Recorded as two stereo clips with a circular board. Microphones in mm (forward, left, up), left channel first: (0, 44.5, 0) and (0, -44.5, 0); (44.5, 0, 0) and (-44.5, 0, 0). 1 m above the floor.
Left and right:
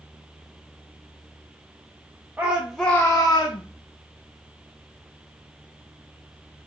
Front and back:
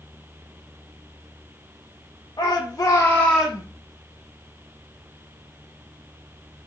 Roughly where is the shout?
Ahead right.